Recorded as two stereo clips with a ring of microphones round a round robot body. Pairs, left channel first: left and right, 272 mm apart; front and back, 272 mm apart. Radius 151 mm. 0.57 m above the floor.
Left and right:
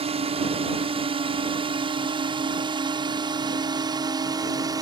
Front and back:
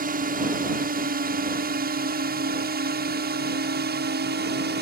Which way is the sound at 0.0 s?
145° right.